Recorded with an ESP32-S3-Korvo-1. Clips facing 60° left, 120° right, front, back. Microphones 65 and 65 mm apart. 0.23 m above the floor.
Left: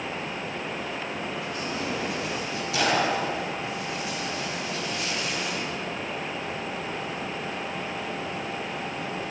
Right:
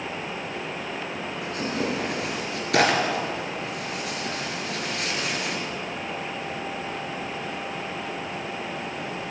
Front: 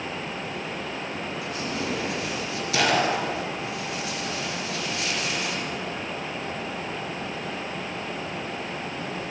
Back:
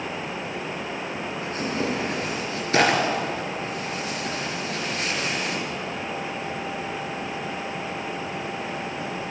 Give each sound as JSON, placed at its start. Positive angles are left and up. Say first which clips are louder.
{"t": 1.4, "sound": "tearing paper", "louder": "right 3 dB, back 5 dB", "azimuth_deg": -135, "distance_m": 4.5}